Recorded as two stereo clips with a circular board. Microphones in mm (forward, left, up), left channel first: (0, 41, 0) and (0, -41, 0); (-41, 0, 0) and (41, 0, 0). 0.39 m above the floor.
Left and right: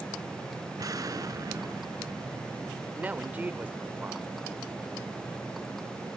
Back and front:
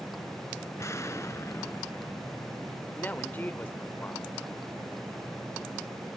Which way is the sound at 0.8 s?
130° right.